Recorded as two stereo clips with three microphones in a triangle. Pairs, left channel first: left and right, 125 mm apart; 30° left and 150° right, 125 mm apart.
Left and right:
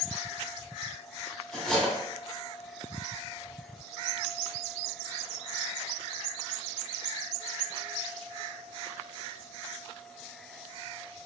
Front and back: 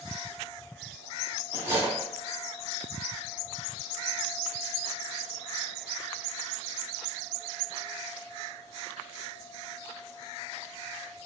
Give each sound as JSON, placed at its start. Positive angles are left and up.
{"t": 1.5, "sound": "cutlery clinking", "azimuth_deg": 170, "distance_m": 0.9}